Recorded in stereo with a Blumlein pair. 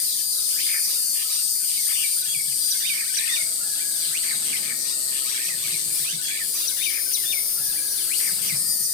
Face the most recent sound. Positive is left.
turn(degrees=35)